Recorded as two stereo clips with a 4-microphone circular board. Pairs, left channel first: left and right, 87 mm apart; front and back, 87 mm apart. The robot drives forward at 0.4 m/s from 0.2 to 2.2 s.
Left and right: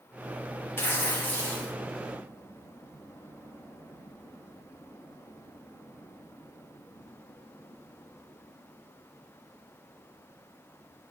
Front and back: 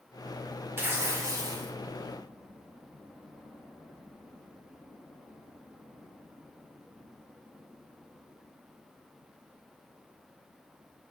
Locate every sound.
0.8 s tearing paper: 135° left, 0.6 m; by 1.7 s 155° left, 0.9 m